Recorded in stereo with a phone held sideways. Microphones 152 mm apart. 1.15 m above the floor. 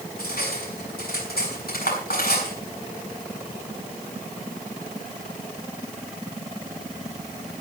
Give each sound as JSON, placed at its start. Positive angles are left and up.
{"t": 0.2, "sound": "cutlery clinking", "side_deg": 85, "distance_m": 6.5}